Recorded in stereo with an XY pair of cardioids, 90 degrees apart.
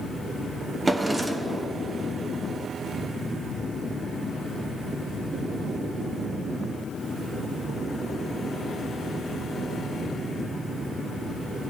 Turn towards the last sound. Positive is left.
turn(degrees=-25)